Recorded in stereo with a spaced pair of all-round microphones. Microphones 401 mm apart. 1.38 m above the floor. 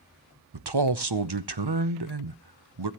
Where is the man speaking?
75° right (ahead or behind), 0.8 m.